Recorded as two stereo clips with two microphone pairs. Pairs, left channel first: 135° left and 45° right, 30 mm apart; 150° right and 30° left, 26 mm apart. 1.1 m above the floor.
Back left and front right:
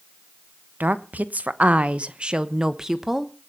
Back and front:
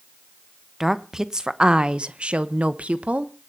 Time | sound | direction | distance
0.8 | a woman speaking | 40° right | 1.1 m